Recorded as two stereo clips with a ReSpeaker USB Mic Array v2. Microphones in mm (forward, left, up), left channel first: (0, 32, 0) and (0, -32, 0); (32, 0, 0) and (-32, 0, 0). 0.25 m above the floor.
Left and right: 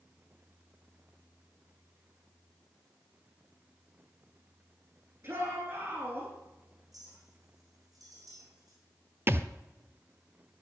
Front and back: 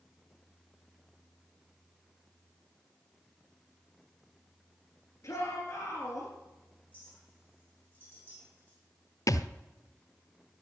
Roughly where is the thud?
Ahead right.